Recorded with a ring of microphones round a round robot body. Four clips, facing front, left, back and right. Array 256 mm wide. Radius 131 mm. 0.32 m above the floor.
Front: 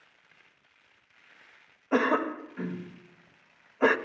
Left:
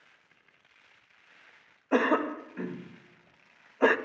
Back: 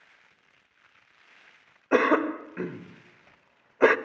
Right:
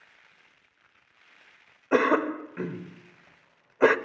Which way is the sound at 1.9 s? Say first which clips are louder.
Right 3 dB, back 4 dB; 145° right.